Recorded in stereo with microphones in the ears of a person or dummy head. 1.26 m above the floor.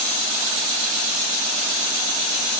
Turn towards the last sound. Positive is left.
No sound to turn to.